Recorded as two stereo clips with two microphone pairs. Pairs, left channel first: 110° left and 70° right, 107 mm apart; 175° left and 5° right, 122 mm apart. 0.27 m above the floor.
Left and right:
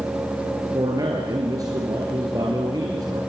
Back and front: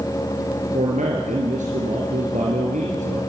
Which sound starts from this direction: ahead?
A man speaking, at 0.7 s.